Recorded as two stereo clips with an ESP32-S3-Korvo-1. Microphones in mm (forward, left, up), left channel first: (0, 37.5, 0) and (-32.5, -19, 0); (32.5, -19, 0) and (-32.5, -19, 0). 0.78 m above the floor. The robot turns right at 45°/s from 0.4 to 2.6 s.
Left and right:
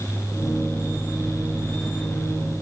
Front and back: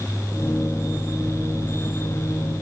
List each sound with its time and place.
Only background noise.